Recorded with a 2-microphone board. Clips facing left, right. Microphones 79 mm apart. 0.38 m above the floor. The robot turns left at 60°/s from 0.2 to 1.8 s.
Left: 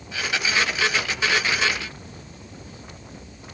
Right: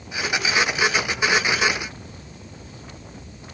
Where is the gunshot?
No gunshot in this recording.